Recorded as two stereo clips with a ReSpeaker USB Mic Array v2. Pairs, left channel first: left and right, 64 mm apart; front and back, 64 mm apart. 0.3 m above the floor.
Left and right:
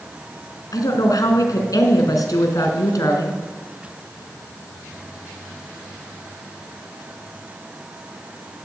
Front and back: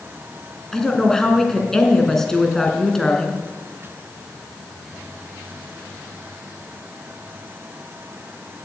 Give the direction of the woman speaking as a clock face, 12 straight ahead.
9 o'clock.